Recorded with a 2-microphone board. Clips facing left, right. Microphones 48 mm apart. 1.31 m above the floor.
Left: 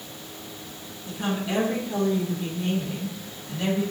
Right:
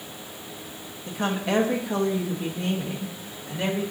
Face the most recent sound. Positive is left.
turn(degrees=-50)  # may be behind; listen again after turning